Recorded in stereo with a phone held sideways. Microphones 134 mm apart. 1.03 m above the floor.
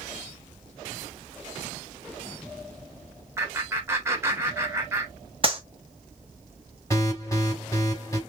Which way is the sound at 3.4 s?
20° right (ahead or behind).